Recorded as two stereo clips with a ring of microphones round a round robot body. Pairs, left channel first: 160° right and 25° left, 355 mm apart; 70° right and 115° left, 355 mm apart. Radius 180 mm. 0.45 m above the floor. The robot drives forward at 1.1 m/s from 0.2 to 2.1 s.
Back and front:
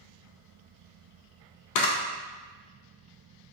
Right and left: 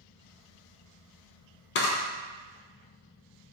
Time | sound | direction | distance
1.8 | a camera shutter | 120° right | 0.5 m